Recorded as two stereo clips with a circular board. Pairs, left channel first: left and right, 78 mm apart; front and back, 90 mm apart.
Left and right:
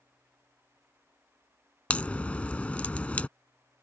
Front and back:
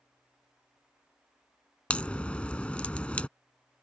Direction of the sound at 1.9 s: 50° left.